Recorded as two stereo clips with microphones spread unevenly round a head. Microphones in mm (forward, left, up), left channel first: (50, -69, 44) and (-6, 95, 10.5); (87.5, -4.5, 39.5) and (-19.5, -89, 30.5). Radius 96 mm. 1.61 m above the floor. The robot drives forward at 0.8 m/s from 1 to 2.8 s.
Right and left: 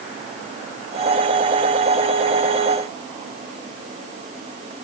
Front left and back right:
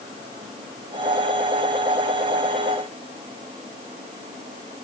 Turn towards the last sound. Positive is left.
No sound to turn to.